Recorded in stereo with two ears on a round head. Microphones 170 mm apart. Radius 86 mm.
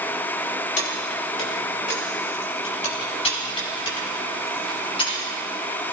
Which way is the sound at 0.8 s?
40° left (ahead or behind).